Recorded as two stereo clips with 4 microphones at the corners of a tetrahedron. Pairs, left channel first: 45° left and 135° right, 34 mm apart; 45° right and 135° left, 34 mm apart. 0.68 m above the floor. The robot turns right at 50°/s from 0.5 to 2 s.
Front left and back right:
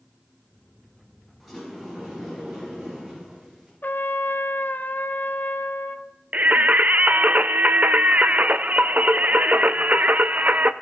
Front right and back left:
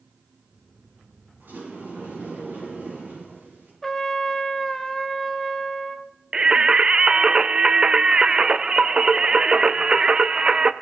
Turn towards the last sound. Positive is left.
turn(degrees=-165)